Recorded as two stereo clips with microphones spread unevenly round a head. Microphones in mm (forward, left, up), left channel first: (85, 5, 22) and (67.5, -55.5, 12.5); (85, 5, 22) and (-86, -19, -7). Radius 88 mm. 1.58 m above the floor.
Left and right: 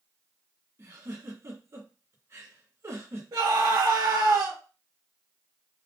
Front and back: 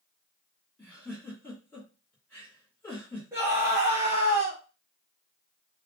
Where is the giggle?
65° right, 2.5 m.